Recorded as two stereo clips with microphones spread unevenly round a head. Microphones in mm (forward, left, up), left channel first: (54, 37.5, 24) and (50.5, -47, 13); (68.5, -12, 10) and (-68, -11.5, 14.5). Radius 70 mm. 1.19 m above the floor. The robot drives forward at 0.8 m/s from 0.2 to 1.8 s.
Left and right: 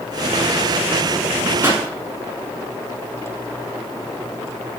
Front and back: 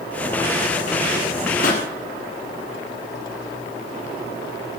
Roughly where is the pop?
Ahead right.